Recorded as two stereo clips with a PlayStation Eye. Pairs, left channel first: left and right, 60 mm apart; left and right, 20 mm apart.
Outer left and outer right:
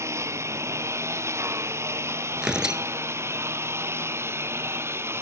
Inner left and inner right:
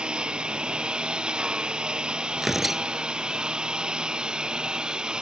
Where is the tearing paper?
10° right (ahead or behind).